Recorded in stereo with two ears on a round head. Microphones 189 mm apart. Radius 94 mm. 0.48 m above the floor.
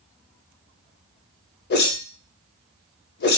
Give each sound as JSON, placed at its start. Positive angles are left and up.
{"t": 1.7, "sound": "a whoosh", "side_deg": 50, "distance_m": 0.6}